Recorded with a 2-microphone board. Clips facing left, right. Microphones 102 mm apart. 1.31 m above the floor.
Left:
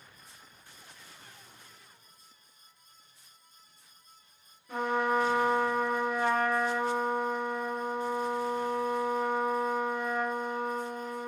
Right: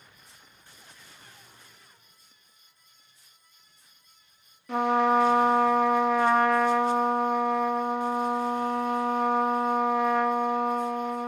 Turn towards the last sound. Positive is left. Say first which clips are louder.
# right 6 dB
turn(degrees=-80)